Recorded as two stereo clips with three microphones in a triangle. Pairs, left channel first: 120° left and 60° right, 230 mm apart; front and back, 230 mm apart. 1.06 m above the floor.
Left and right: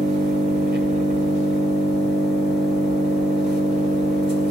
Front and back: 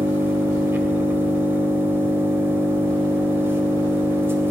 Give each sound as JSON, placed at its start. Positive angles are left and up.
{"t": 0.0, "sound": "an engine running", "azimuth_deg": -100, "distance_m": 2.5}